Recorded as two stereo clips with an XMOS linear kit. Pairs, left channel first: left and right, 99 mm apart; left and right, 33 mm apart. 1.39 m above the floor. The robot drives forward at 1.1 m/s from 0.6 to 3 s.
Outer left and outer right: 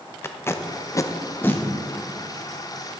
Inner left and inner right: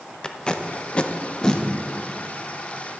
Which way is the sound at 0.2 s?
25° left (ahead or behind).